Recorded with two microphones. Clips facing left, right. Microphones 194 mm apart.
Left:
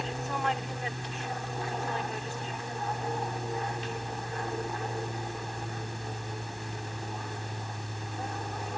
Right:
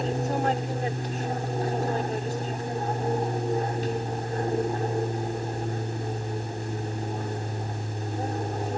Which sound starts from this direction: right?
An aircraft, at 0.0 s.